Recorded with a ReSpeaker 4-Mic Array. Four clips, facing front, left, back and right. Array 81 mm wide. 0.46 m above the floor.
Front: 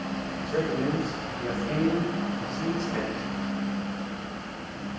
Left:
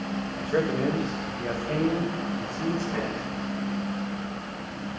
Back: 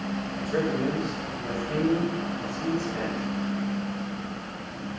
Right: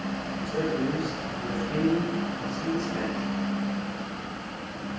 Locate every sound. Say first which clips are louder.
0.4 s a man speaking: left 3 dB, back 1 dB; 105° left, 1.7 m; by 3.3 s 60° left, 4 m